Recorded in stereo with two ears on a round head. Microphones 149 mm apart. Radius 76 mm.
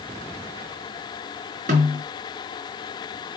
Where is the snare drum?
50° right (ahead or behind), 4.5 m.